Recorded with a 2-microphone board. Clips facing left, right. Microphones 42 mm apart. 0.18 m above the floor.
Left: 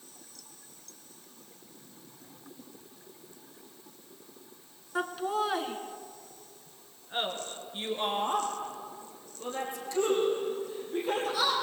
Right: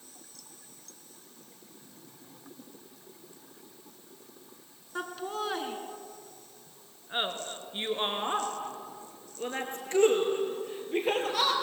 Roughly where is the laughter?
Centre.